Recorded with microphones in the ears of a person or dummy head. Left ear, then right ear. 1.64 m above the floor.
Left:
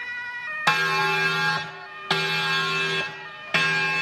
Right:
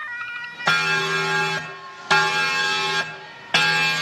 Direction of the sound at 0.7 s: 15° left (ahead or behind).